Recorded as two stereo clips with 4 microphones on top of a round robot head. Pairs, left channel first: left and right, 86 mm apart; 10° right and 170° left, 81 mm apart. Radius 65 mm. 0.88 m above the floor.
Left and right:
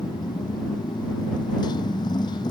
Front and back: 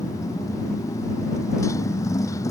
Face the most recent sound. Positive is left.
turn(degrees=40)